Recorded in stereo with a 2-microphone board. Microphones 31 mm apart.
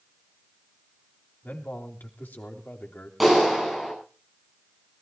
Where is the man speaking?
80° left, 3.5 m; by 3.1 s 75° left (ahead or behind), 3.5 m.